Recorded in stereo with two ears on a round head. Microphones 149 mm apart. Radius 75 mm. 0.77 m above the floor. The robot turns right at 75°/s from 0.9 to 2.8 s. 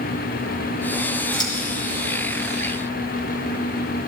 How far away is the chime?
No chime in this recording.